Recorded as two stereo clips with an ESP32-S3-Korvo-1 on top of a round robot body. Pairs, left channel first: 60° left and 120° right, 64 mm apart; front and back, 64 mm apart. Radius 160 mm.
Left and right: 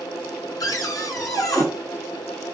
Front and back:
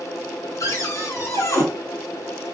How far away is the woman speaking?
I don't hear a woman speaking.